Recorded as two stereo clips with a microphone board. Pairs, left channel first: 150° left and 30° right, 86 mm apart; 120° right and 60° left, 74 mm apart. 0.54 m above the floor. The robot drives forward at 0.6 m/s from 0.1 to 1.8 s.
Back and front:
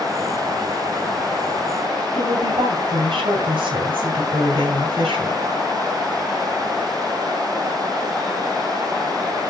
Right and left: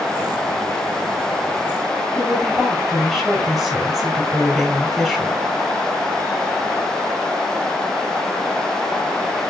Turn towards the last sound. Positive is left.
turn(degrees=-25)